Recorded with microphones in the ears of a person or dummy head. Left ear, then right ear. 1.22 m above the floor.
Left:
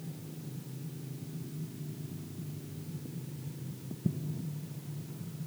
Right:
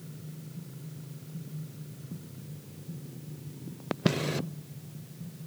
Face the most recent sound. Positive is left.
No sound to turn to.